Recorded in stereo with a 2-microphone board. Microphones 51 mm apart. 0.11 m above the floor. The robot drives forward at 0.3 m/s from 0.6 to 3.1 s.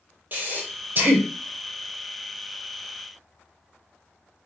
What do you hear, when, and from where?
0.3 s breathing: 40° right (ahead or behind), 1.2 m; by 1.3 s 45° right (ahead or behind), 1.1 m